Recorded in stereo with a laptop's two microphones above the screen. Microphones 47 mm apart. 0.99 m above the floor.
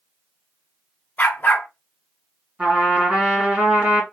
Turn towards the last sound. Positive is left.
turn(degrees=-20)  # may be behind; listen again after turning